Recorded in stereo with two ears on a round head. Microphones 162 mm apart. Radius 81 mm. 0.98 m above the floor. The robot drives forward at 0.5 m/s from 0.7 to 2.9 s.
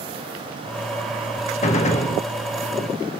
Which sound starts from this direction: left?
A gunshot, at 1.6 s.